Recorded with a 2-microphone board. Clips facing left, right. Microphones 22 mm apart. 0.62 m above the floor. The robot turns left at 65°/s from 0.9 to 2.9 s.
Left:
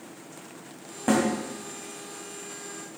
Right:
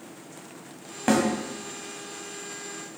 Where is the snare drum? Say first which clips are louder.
Right 1 dB; 60° right (ahead or behind), 2.5 m; by 1.3 s 50° right (ahead or behind), 2.5 m.